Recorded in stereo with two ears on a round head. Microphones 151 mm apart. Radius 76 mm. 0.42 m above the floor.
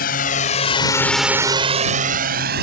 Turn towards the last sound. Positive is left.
turn(degrees=-65)  # may be behind; listen again after turning